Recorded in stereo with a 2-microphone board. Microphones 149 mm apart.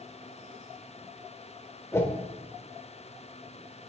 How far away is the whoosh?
About 0.6 m.